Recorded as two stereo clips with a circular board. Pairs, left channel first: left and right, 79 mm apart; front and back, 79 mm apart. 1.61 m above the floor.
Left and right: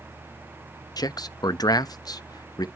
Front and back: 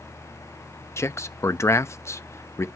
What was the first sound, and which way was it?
A man speaking, 55° left.